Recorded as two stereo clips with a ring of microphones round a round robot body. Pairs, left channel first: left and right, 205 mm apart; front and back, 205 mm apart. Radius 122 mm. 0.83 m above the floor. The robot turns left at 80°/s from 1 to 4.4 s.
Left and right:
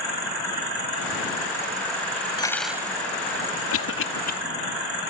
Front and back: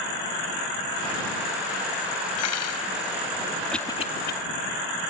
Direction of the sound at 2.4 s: 20° left.